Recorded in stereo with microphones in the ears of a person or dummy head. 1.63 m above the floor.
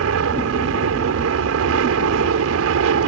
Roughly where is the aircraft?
Right.